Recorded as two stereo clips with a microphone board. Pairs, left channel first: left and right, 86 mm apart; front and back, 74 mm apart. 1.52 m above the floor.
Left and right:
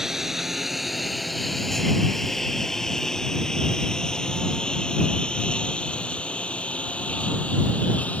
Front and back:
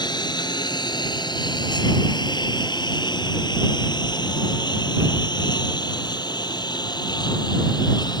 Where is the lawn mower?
5° right; by 8.2 s 15° left.